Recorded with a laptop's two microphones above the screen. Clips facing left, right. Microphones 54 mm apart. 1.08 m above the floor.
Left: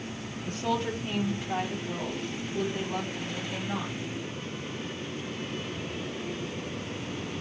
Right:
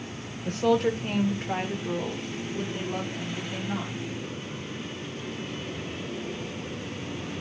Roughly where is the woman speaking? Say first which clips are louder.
Right 7 dB; right.